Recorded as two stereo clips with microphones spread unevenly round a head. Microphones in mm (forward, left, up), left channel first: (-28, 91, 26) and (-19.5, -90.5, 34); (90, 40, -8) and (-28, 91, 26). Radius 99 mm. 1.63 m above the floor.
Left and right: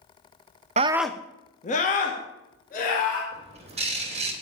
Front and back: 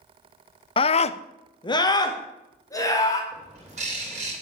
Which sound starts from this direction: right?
A scream, at 0.8 s.